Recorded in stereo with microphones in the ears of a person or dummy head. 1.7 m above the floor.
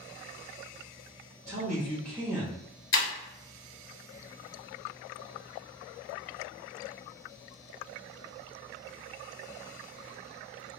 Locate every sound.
1.5 s a man speaking: 45° right (ahead or behind), 0.9 m; by 2.7 s 5° left (ahead or behind), 0.6 m
2.9 s breaking glass: 25° left (ahead or behind), 1.8 m